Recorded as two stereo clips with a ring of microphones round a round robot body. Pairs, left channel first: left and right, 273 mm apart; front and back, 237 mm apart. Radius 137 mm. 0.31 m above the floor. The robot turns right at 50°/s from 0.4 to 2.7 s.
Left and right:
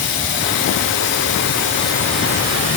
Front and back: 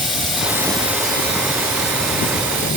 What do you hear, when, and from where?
0.0 s running water: 90° left, 8.5 m; by 2.8 s 155° right, 8.5 m